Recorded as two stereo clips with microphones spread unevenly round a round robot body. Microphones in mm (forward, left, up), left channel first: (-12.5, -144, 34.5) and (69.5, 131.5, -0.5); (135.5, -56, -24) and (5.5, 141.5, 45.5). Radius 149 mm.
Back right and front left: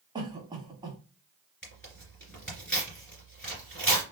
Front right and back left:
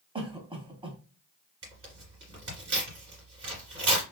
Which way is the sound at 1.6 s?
170° left.